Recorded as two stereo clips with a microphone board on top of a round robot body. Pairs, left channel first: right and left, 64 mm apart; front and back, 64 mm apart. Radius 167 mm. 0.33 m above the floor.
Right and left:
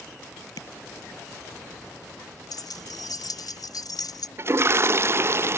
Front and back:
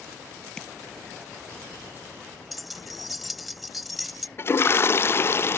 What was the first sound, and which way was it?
Tapping, 75° right.